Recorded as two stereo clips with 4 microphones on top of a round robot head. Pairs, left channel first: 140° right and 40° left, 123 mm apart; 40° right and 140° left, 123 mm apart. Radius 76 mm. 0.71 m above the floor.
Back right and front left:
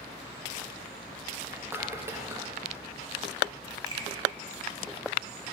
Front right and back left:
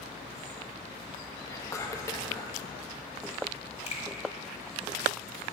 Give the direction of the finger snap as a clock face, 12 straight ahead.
12 o'clock.